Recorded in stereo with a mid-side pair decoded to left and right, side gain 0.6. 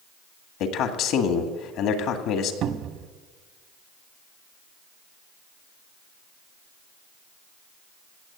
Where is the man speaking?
70° left, 2.0 m.